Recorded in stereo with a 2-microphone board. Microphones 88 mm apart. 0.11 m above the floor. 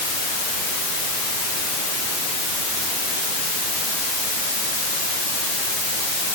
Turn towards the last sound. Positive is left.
No sound to turn to.